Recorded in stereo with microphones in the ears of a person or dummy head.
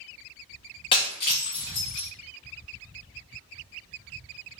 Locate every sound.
0.9 s breaking glass: 25° left (ahead or behind), 0.6 m